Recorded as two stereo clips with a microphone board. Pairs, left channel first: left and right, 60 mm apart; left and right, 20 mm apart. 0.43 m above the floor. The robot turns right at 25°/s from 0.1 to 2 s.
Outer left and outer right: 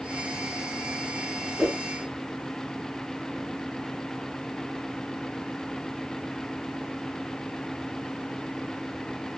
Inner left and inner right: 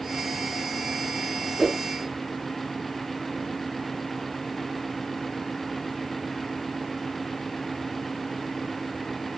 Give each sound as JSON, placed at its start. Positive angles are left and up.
{"t": 1.6, "sound": "a whoosh", "side_deg": -5, "distance_m": 2.0}